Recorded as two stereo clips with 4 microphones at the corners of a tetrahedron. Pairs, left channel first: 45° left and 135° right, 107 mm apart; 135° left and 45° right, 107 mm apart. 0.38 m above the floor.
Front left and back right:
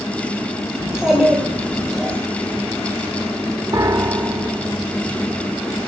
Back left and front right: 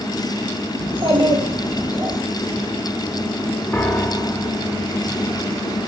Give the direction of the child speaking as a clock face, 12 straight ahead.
2 o'clock.